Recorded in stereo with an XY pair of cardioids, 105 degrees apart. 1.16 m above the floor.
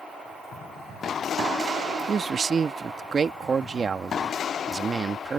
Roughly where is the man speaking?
Ahead right.